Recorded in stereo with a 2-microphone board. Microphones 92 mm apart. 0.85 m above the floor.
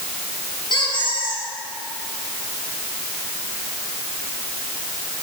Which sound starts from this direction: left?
A squeak, at 0.7 s.